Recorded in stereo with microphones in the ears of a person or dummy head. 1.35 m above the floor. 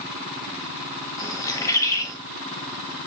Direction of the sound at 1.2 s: 20° left (ahead or behind).